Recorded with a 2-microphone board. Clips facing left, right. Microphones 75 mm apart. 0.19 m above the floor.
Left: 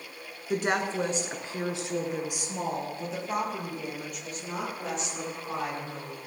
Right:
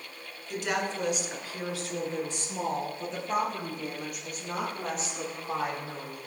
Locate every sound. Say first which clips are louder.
0.5 s a woman speaking: left 3 dB; 45° left (ahead or behind), 1.8 m; by 6.2 s 10° right (ahead or behind), 5.5 m